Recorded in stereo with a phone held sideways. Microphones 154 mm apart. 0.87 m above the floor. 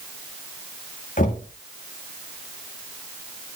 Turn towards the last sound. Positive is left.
turn(degrees=65)  # may be behind; listen again after turning